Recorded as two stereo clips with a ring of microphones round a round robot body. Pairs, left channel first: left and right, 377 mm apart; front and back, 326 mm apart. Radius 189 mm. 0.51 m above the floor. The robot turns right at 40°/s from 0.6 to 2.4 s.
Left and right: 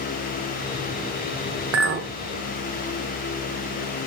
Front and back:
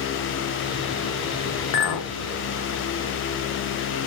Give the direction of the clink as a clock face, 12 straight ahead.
1 o'clock.